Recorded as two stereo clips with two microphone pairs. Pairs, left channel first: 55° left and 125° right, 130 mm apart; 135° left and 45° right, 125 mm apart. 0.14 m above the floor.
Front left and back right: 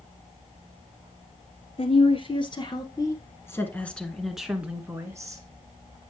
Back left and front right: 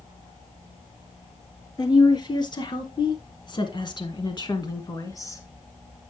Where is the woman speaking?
85° left, 1.9 m; by 5.4 s 170° right, 1.3 m.